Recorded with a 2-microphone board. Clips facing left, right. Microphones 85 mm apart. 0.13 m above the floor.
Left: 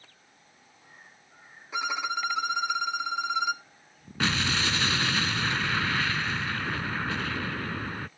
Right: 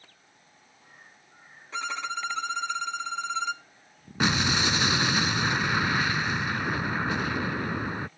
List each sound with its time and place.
1.7 s a violin: 10° left (ahead or behind)
4.2 s an explosion: 20° right (ahead or behind)